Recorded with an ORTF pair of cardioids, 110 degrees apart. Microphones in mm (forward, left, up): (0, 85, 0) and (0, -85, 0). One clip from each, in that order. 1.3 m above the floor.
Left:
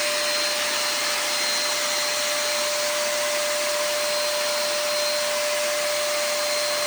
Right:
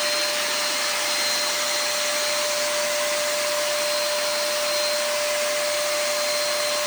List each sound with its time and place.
Only background noise.